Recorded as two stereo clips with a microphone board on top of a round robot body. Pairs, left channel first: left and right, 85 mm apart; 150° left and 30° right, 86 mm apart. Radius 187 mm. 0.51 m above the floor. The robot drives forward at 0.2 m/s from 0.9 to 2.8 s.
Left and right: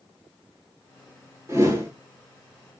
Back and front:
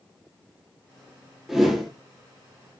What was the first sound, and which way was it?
A whoosh, 115° right.